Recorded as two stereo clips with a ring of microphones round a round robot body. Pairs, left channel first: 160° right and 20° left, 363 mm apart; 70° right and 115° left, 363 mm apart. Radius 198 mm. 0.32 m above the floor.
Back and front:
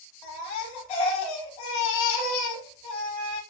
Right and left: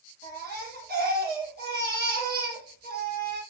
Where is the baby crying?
175° left, 7.5 m.